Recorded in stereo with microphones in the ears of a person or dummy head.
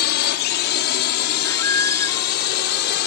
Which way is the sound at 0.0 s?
50° left (ahead or behind).